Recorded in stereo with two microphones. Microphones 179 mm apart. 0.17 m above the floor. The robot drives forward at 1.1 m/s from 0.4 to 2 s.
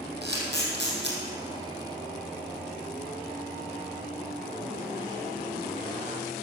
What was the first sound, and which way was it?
A camera shutter, 75° right (ahead or behind).